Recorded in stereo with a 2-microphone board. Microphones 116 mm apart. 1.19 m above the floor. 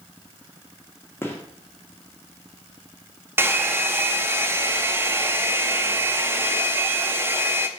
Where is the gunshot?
20° left (ahead or behind), 1.4 m.